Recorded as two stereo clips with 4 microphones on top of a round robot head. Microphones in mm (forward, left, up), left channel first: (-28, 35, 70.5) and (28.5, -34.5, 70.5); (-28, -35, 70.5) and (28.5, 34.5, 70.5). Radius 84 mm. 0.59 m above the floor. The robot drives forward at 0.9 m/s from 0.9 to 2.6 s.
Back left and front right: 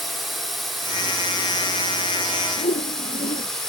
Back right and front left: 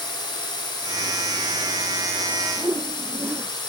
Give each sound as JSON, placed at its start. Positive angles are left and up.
{"t": 0.0, "sound": "a drone", "azimuth_deg": -140}
{"t": 2.6, "sound": "a whoosh", "azimuth_deg": 120}